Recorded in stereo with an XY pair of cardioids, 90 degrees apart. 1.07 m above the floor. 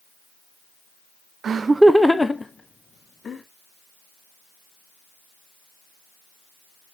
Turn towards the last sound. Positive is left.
turn(degrees=40)